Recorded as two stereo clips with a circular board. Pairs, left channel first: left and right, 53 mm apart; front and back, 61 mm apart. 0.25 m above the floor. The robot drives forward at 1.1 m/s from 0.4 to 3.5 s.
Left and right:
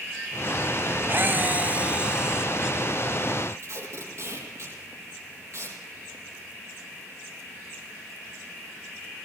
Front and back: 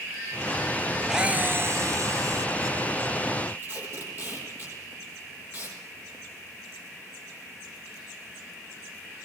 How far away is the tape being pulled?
About 9.5 m.